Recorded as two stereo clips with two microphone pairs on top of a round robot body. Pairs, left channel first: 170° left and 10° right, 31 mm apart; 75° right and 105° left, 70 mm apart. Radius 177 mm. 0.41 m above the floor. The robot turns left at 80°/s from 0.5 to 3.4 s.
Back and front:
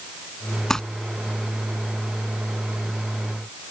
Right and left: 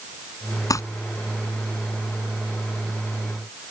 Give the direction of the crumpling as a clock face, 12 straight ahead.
4 o'clock.